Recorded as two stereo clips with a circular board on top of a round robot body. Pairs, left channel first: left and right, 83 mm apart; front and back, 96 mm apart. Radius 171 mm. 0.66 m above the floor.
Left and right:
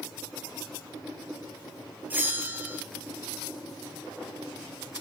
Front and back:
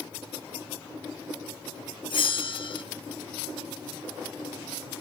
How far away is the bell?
About 1.1 m.